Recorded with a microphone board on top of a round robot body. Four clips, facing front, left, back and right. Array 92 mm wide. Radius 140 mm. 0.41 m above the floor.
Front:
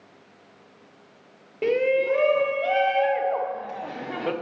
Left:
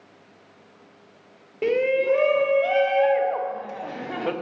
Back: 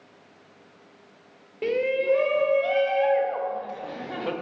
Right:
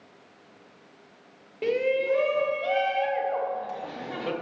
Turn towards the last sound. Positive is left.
turn(degrees=55)